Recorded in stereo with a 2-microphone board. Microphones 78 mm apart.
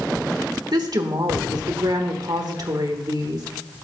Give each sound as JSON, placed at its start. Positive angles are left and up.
{"t": 0.7, "sound": "a woman speaking", "side_deg": -60, "distance_m": 1.4}